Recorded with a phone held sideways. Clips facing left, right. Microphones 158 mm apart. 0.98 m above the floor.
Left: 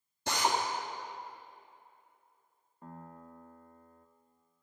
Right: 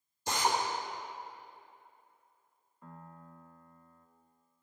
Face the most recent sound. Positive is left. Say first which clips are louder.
# left 3 dB
turn(degrees=45)  # may be behind; listen again after turning